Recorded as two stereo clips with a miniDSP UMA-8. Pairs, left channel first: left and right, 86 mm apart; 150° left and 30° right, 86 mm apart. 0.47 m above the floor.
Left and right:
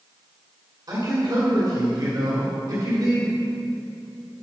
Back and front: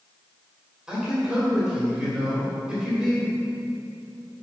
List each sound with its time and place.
0.9 s a man speaking: 110° right, 1.9 m